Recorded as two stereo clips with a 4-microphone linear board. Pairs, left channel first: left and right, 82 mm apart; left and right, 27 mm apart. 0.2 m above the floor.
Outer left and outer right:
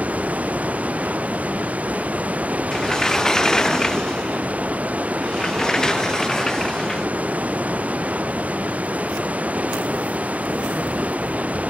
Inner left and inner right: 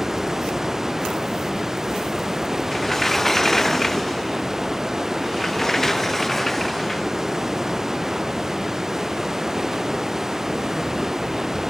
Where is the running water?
15° right (ahead or behind).